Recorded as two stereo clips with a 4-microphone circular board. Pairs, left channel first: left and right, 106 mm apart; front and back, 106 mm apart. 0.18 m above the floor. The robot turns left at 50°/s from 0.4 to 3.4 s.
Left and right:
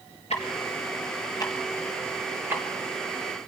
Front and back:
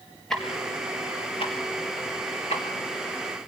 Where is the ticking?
85° left, 3.5 m; by 2.6 s 25° right, 3.5 m.